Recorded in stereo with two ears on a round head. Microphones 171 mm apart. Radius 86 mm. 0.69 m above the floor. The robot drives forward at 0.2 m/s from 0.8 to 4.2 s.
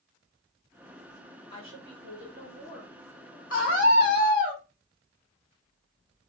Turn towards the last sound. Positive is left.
turn(degrees=40)  # may be behind; listen again after turning